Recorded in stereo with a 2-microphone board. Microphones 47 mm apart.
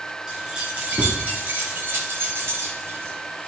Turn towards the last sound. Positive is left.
turn(degrees=-60)  # may be behind; listen again after turning